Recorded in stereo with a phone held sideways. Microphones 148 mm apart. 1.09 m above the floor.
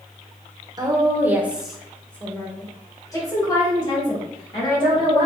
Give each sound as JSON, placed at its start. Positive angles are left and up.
{"t": 0.8, "sound": "a woman speaking", "side_deg": -25, "distance_m": 0.7}